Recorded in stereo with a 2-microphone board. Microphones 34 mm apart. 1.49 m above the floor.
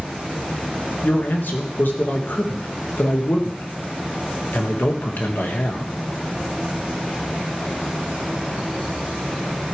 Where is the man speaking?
70° left (ahead or behind), 1.7 m.